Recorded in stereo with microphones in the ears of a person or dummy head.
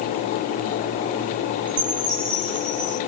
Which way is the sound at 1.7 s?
35° right (ahead or behind).